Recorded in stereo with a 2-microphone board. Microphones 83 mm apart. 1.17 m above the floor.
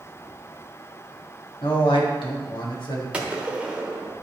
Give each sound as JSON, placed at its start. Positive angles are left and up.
{"t": 1.6, "sound": "a man speaking", "side_deg": 85, "distance_m": 1.9}
{"t": 3.1, "sound": "a gunshot", "side_deg": -15, "distance_m": 1.1}